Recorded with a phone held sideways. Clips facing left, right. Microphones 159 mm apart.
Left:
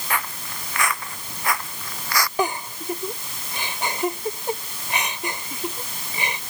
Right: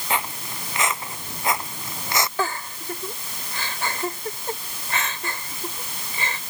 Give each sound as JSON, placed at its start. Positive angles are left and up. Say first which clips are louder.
{"t": 0.1, "sound": "footsteps", "louder": "right 1 dB", "side_deg": -20}
{"t": 2.4, "sound": "a giggle", "louder": "left 3 dB", "side_deg": 20}